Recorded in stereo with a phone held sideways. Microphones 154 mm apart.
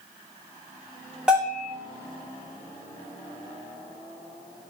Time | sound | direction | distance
1.3 | a bell | 5° right (ahead or behind) | 2.5 m